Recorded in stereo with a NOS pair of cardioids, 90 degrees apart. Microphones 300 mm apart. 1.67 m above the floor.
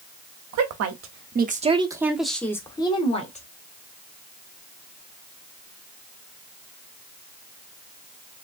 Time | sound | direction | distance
0.5 | a woman speaking | 65° right | 0.9 m